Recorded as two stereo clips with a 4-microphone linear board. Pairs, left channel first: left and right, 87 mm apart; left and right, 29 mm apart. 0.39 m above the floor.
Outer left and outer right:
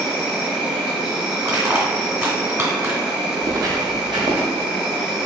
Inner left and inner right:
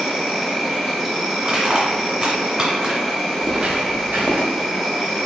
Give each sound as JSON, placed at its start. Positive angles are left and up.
{"t": 0.0, "sound": "an insect", "side_deg": -5, "distance_m": 1.0}
{"t": 1.4, "sound": "crushing", "side_deg": -25, "distance_m": 1.5}
{"t": 3.4, "sound": "footsteps", "side_deg": -40, "distance_m": 0.6}